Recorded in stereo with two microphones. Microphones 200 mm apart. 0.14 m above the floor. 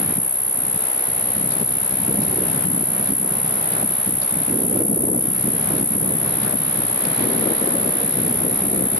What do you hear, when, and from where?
0.0 s an insect: 70° left (ahead or behind)